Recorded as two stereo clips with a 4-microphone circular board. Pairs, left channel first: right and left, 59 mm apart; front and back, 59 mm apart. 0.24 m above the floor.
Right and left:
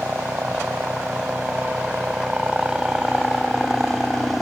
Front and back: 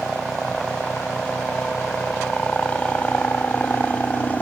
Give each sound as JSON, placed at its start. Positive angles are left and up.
{"t": 0.0, "sound": "a helicopter", "azimuth_deg": 80}